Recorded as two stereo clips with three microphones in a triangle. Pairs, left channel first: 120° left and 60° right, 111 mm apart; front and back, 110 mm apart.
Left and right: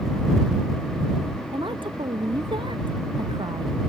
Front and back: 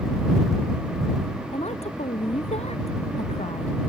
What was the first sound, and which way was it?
A woman speaking, 15° right.